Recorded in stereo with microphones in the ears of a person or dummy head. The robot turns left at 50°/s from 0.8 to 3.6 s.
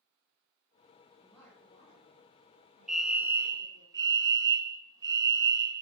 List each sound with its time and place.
1.2 s a woman speaking: 175° right, 2.5 m; by 3.9 s 65° left, 2.5 m
2.9 s a fire alarm: 5° left, 0.8 m; by 5.8 s 35° right, 0.8 m